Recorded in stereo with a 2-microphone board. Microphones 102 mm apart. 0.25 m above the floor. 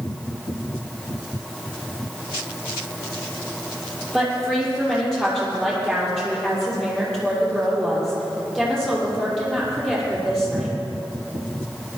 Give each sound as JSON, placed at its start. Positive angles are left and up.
{"t": 4.1, "sound": "a woman speaking", "side_deg": 5, "distance_m": 5.5}